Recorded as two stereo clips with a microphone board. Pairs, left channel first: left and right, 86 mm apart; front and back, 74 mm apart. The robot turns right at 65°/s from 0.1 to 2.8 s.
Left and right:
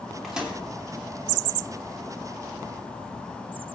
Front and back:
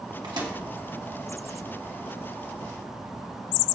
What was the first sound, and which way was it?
A microwave, straight behind.